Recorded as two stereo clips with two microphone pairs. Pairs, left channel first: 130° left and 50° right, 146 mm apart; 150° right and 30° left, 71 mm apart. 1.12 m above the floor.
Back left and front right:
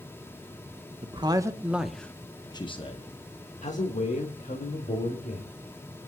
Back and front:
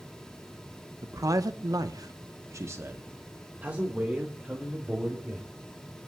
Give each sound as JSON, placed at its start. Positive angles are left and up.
{"t": 1.0, "sound": "a man speaking", "azimuth_deg": -5, "distance_m": 1.1}